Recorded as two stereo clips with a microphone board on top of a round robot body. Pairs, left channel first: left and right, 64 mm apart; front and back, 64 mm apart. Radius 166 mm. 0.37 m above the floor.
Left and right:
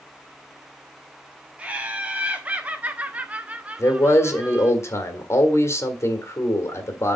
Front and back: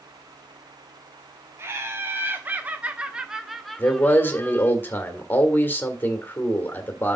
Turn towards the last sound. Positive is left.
turn(degrees=55)